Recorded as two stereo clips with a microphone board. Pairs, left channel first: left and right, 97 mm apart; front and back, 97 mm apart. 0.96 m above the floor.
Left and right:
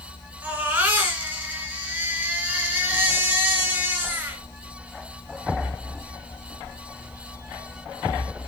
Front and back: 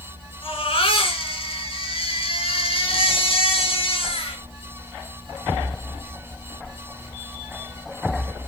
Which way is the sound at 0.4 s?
20° right.